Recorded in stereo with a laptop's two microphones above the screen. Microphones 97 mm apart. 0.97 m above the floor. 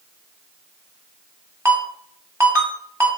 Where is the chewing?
I don't hear chewing.